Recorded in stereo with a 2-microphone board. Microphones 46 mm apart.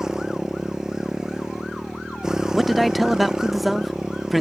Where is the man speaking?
Centre (ahead or behind).